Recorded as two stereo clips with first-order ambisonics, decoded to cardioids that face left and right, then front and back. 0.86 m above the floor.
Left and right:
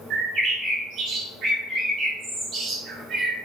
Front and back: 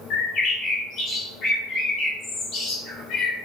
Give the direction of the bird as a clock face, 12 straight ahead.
1 o'clock.